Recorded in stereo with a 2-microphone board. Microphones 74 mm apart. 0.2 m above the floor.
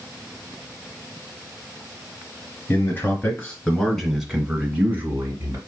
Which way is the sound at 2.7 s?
30° left (ahead or behind).